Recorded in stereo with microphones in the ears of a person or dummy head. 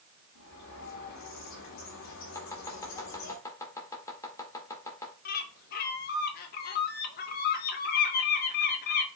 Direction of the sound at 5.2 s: 65° left (ahead or behind).